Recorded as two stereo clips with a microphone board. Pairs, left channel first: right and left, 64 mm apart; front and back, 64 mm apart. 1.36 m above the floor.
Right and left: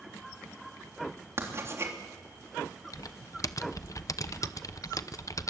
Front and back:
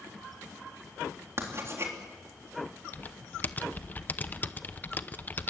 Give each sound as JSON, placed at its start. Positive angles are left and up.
{"t": 1.4, "sound": "writing", "azimuth_deg": 135, "distance_m": 3.5}
{"t": 2.9, "sound": "typing on a keyboard", "azimuth_deg": -60, "distance_m": 0.7}